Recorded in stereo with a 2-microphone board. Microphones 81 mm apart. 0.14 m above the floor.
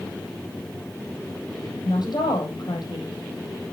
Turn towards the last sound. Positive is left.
turn(degrees=65)  # may be behind; listen again after turning